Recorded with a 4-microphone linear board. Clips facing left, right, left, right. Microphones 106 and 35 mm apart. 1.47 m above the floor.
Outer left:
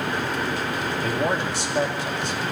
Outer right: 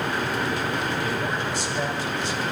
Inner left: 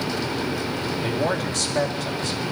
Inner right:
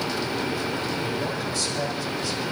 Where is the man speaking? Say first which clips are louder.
Outer left 3 dB, inner left 4 dB; 80° left, 4 m; by 2.4 s 60° left (ahead or behind), 3.5 m.